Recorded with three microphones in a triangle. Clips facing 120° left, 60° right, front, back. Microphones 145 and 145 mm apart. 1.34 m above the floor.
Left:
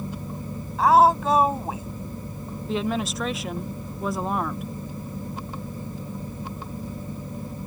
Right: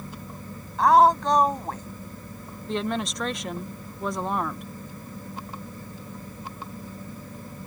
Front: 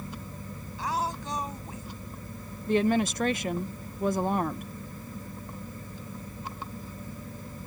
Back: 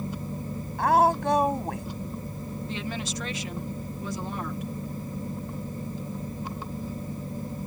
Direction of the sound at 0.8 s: 150° right.